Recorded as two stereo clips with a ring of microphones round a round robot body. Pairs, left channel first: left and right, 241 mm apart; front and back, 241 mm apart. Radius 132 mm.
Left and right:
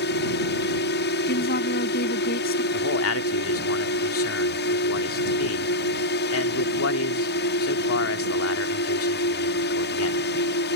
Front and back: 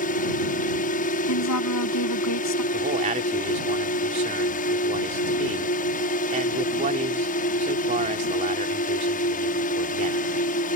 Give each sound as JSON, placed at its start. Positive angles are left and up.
{"t": 0.0, "sound": "a drone", "azimuth_deg": 50}
{"t": 1.3, "sound": "a woman speaking", "azimuth_deg": 30}
{"t": 2.7, "sound": "a man speaking", "azimuth_deg": 115}